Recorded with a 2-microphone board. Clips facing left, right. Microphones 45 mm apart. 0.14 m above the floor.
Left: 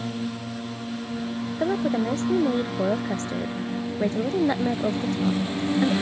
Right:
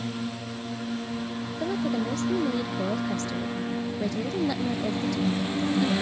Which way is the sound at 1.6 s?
35° left (ahead or behind).